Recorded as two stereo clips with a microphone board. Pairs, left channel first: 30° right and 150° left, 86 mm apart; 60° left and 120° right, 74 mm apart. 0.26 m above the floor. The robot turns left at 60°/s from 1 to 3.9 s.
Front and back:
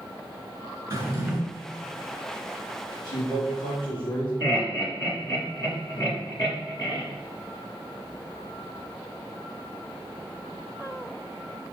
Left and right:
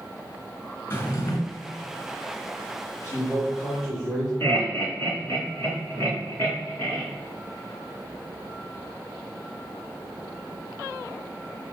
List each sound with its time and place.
0.9 s a drawer: 115° left, 1.8 m; by 1.4 s 90° left, 1.8 m
3.0 s a man speaking: 20° left, 3 m; by 4.3 s 30° right, 3 m
4.4 s laughter: straight ahead, 2.5 m